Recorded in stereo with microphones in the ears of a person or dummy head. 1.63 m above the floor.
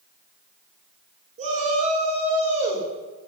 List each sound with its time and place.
1.4 s a shout: 35° right (ahead or behind), 2.5 m